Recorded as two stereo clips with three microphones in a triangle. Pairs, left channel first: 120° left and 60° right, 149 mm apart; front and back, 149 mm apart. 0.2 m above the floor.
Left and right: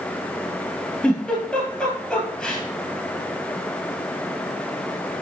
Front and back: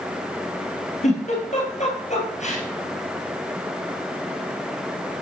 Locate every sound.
1.0 s a giggle: 30° left, 3 m